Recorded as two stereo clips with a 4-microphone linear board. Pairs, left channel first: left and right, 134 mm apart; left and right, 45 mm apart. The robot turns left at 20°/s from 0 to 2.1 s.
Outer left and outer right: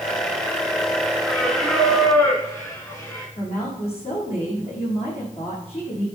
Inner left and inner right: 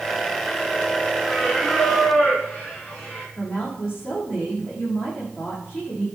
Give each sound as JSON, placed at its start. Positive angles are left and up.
{"t": 1.3, "sound": "singing", "side_deg": 5, "distance_m": 5.5}
{"t": 3.4, "sound": "a woman speaking", "side_deg": 50, "distance_m": 7.5}